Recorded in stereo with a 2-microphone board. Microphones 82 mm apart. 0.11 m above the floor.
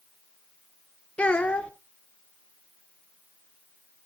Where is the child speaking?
15° left (ahead or behind), 0.7 m.